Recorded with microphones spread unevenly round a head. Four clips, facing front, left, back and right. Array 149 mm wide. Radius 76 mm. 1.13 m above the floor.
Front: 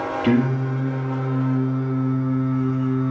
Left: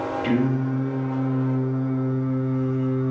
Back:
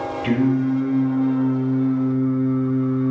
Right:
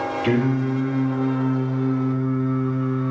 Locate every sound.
0.2 s singing: 30° right, 4 m